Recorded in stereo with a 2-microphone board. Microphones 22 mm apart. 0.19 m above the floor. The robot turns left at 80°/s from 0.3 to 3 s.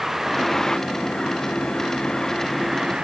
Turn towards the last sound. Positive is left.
turn(degrees=-35)  # may be behind; listen again after turning